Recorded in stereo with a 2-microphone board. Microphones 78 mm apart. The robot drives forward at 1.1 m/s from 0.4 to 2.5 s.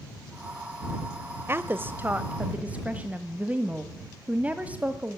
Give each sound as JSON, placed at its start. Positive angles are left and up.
{"t": 1.5, "sound": "a woman speaking", "side_deg": -30, "distance_m": 1.0}